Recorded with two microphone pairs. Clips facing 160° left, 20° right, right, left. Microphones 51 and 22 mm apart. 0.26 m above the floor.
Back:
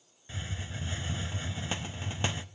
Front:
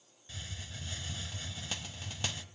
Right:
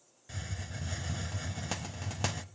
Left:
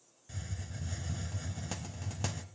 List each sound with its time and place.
0.3 s a hiss: 145° right, 0.5 m